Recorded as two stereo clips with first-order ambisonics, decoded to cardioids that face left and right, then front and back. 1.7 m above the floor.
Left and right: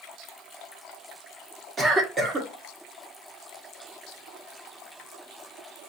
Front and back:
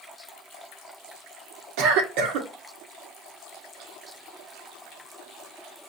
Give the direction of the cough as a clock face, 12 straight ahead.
5 o'clock.